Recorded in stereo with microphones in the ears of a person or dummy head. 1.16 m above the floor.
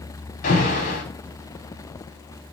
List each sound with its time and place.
0.4 s an alarm: 45° left (ahead or behind), 4 m